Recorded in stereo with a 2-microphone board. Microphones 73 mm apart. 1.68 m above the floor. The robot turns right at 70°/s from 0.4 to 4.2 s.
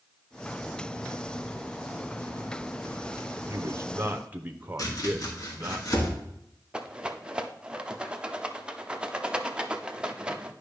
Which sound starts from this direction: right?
A man speaking, at 3.5 s.